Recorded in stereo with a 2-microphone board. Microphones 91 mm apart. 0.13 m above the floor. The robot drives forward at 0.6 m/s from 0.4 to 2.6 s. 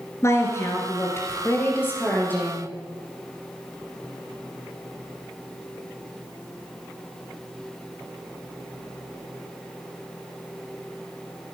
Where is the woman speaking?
30° left (ahead or behind), 2.0 m; by 2.7 s 20° left (ahead or behind), 3 m.